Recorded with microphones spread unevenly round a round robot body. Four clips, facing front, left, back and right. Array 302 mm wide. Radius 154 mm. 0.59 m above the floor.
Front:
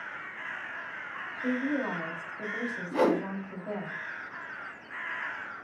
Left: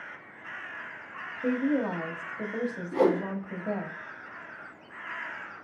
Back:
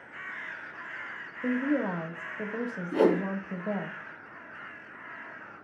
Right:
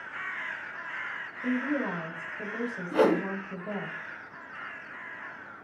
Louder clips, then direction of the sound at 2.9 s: Right 1 dB, back 2 dB; 55° right.